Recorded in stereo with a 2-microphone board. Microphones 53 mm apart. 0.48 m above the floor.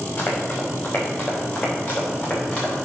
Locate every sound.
0.2 s running footsteps: 30° left (ahead or behind), 4 m; by 2.8 s 15° left (ahead or behind), 5 m